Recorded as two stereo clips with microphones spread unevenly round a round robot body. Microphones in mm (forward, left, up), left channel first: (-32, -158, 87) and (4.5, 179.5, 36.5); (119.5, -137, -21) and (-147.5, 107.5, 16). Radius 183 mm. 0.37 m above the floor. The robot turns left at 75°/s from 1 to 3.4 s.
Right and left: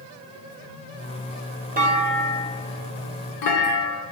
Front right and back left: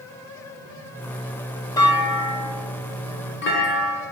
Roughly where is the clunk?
Ahead left.